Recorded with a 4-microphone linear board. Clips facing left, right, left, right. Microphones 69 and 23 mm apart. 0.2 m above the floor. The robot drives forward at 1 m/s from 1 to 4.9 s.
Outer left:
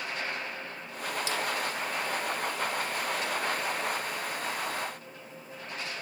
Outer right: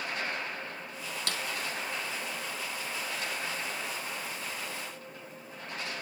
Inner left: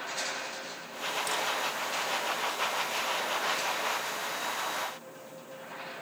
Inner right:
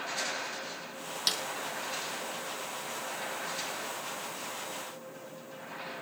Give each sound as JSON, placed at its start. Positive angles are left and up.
{"t": 1.3, "sound": "a snare drum", "side_deg": -60, "distance_m": 2.5}